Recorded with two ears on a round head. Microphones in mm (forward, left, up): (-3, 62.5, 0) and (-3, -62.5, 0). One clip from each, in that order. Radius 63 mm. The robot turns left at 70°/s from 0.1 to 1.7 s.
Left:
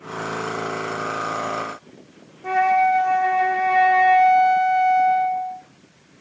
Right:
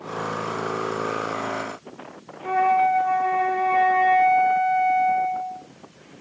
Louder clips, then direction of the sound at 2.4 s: Left 2 dB; 65° left (ahead or behind).